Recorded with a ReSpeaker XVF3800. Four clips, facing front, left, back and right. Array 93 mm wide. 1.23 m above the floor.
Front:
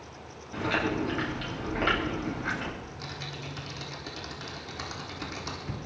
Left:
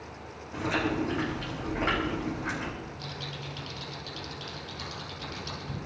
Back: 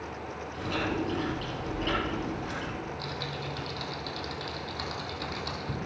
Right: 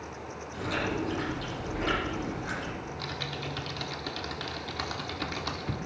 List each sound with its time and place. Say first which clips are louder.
0.5 s chewing: left 3 dB, front 3 dB; 25° left, 9 m
2.8 s typing on a keyboard: right 3 dB, back 5 dB; 75° right, 4 m